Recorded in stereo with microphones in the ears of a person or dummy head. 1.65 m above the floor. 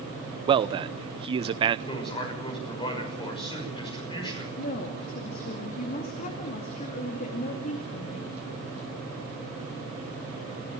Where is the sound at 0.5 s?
35° right (ahead or behind), 0.8 m.